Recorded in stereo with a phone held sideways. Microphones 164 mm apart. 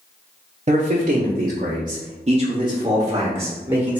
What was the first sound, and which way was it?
A man speaking, 50° right (ahead or behind).